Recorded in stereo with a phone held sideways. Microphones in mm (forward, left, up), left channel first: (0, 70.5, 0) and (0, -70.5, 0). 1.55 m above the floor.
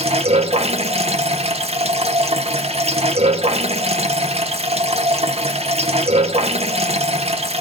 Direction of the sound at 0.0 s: 45° right (ahead or behind).